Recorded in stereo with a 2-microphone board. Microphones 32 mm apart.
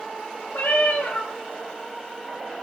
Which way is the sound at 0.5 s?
65° left (ahead or behind).